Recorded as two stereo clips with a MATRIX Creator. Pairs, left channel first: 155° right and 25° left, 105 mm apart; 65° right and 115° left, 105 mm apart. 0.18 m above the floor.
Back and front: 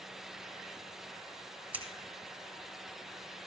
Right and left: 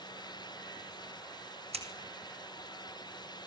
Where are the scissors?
95° left, 2.5 m.